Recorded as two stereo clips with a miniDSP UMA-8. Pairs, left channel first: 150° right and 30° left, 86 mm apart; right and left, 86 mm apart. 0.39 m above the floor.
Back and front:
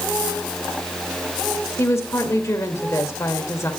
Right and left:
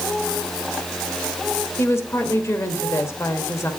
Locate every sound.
1.8 s a woman speaking: 125° right, 1.3 m